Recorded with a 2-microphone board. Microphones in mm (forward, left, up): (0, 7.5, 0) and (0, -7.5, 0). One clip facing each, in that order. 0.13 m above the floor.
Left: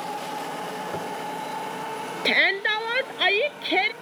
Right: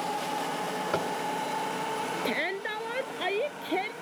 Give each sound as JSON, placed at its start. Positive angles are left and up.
{"t": 0.9, "sound": "tapping", "side_deg": -50}
{"t": 2.2, "sound": "a shout", "side_deg": 50}